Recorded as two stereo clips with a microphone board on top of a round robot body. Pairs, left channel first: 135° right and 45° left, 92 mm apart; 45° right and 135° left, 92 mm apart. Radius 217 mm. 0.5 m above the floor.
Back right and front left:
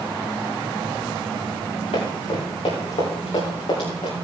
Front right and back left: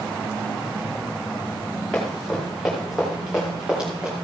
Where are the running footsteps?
130° right, 5.5 m; by 4.1 s 145° right, 5.5 m.